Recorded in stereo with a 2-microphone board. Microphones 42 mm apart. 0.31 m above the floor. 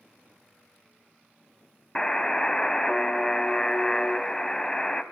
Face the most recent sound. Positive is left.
turn(degrees=15)  # may be behind; listen again after turning